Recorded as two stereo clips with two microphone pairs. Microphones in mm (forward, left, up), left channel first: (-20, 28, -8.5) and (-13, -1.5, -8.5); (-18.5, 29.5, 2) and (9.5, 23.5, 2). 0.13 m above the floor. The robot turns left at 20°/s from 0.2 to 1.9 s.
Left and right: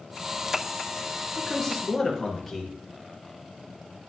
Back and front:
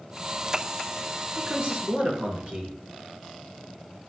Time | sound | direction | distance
1.4 | a man speaking | 30° left | 2.5 m